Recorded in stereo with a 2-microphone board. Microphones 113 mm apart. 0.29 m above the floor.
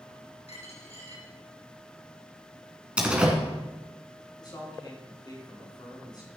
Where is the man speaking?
40° left (ahead or behind), 4 m.